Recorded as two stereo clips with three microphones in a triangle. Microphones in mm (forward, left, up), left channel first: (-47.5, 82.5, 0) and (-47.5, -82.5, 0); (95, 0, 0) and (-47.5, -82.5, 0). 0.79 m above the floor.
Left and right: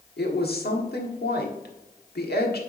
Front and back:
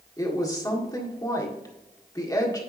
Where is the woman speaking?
95° left, 1.5 m.